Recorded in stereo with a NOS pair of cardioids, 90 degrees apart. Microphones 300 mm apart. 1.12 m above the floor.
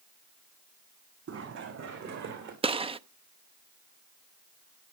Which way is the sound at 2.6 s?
20° right.